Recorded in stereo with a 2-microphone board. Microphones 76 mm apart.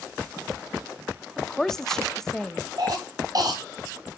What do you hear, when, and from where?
1.4 s a woman speaking: 5° left (ahead or behind), 0.6 m
2.8 s a cough: 55° right (ahead or behind), 3.5 m